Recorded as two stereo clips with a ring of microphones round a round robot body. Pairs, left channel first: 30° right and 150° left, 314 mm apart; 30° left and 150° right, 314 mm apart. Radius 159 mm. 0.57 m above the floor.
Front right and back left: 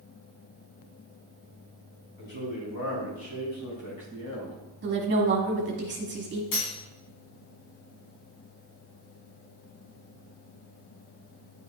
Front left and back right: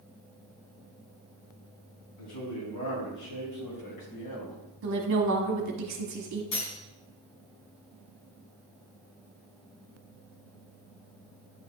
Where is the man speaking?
5° right, 4 m; by 4.6 s 20° left, 3.5 m.